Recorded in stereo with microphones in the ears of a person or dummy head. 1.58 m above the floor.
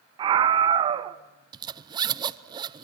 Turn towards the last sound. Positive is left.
turn(degrees=-20)  # may be behind; listen again after turning